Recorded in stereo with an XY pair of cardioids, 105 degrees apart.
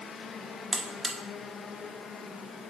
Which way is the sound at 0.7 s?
15° right.